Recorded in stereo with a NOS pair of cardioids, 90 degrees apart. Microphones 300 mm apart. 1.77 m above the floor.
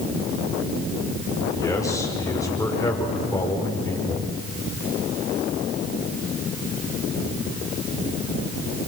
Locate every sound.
1.6 s a man speaking: 10° left, 6.5 m